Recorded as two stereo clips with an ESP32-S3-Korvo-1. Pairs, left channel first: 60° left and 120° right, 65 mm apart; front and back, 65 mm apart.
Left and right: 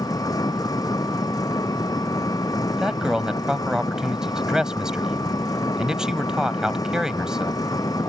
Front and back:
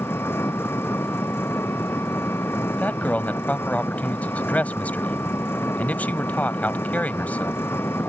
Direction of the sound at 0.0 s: 50° left.